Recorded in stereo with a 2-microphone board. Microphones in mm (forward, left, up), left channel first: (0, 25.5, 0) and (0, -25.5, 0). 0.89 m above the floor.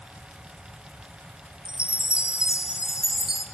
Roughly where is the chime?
Centre.